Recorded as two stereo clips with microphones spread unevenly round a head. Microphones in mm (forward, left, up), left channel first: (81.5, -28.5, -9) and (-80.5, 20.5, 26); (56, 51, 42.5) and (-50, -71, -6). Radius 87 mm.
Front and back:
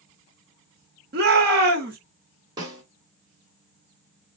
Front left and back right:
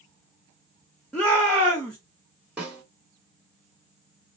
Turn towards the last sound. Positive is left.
turn(degrees=130)